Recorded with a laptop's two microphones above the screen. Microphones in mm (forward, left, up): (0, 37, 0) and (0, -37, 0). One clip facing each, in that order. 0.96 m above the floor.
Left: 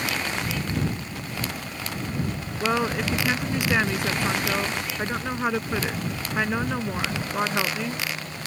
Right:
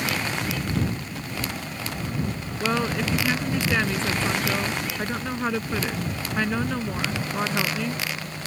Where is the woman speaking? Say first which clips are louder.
Left 1 dB; 10° left (ahead or behind).